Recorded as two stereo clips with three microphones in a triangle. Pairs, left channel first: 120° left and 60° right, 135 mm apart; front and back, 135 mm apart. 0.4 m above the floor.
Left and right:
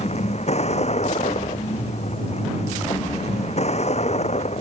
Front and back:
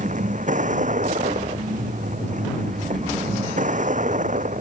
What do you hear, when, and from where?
0.0 s a vehicle: 155° left